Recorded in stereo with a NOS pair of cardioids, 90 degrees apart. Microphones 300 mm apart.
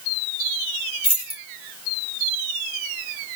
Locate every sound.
1.0 s keys jangling: 30° left, 2.5 m